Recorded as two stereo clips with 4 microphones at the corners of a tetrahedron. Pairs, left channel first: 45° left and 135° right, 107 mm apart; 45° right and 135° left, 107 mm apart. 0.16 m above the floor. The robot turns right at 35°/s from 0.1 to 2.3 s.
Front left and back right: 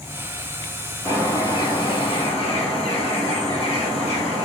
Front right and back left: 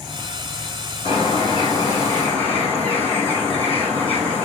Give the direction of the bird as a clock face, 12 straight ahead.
12 o'clock.